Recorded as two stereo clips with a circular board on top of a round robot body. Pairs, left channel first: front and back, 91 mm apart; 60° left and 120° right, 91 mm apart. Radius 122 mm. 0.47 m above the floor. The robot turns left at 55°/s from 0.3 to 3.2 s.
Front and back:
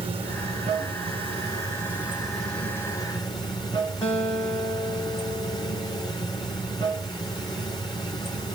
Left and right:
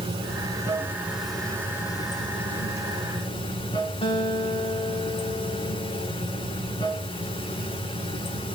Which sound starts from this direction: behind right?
Running water, at 0.0 s.